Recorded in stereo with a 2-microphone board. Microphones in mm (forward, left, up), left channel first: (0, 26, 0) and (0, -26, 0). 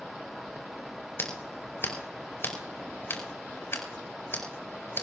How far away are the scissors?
About 5 m.